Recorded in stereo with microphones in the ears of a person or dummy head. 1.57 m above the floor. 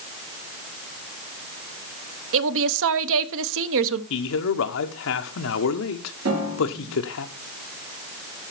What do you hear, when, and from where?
2.3 s a woman speaking: 75° right (ahead or behind), 1.0 m
4.1 s a man speaking: 70° left (ahead or behind), 1.3 m
6.2 s a piano: 75° right (ahead or behind), 5 m